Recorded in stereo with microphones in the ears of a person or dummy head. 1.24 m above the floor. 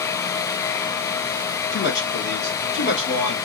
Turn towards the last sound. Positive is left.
turn(degrees=55)  # may be behind; listen again after turning